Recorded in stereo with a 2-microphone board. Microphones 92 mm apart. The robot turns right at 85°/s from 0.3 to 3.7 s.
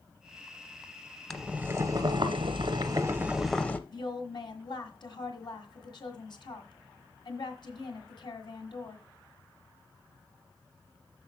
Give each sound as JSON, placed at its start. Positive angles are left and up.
{"t": 1.3, "sound": "boiling", "azimuth_deg": 175, "distance_m": 0.6}
{"t": 3.9, "sound": "a woman speaking", "side_deg": 55, "distance_m": 1.8}